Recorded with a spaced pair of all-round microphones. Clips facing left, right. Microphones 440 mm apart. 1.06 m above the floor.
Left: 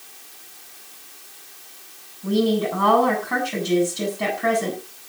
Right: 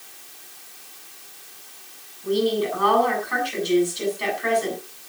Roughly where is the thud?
No thud in this recording.